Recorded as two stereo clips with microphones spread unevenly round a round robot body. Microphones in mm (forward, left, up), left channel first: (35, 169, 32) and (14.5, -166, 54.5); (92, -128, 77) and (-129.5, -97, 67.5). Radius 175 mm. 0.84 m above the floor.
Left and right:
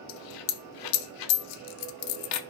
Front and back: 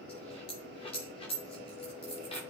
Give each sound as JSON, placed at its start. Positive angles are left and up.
{"t": 0.1, "sound": "a dropped coin", "azimuth_deg": 65, "distance_m": 0.6}